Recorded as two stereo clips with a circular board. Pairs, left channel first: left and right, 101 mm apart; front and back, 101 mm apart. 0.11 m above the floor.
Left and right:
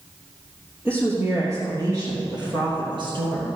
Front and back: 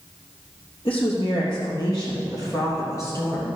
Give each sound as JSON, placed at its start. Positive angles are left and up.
{"t": 0.8, "sound": "a woman speaking", "azimuth_deg": -25, "distance_m": 3.0}